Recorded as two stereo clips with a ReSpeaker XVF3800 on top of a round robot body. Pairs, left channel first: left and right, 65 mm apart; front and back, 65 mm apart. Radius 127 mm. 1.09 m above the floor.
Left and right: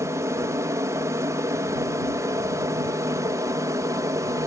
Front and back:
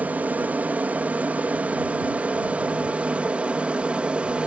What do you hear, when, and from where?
0.0 s an aircraft: 120° right; by 4.5 s 110° right